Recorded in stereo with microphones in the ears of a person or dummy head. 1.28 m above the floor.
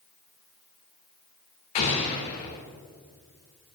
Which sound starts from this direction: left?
An explosion, at 1.8 s.